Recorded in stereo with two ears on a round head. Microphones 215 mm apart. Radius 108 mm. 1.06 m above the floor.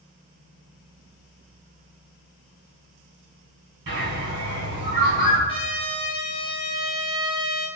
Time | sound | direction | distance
3.9 | a bird | 45° right (ahead or behind) | 1.9 m
5.5 | a trumpet | 20° left (ahead or behind) | 1.5 m